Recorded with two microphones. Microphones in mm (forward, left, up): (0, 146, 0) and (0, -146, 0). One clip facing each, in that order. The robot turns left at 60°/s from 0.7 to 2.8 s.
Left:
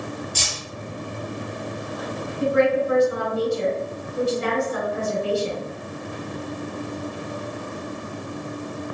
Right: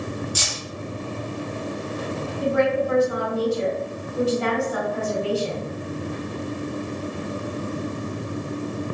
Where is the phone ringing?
I don't hear a phone ringing.